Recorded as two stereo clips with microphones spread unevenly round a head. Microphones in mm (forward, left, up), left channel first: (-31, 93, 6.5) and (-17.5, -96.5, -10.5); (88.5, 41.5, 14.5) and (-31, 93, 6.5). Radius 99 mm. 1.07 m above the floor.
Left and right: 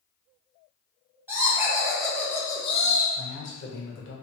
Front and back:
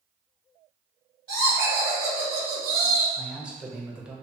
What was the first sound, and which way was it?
Laughter, 165° right.